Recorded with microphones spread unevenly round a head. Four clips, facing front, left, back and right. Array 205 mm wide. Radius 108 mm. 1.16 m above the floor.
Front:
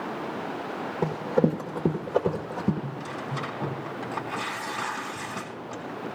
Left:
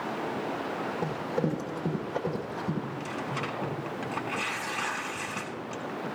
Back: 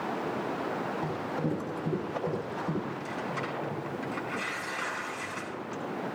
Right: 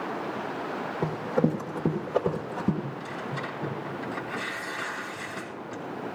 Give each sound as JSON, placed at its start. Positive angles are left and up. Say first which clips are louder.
{"t": 1.0, "sound": "running footsteps", "louder": "right 6 dB, front 8 dB", "azimuth_deg": -10, "distance_m": 2.5}
{"t": 2.8, "sound": "tearing paper", "louder": "even, even", "azimuth_deg": 25, "distance_m": 3.0}